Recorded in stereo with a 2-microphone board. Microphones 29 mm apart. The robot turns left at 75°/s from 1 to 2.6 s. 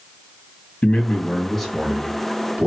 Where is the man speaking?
45° left, 2 m; by 2.7 s 75° right, 2 m.